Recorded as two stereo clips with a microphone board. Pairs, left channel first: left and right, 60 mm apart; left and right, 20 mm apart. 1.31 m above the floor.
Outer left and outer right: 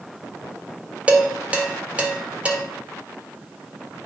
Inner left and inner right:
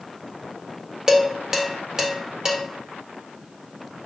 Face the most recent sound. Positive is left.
turn(degrees=-20)  # may be behind; listen again after turning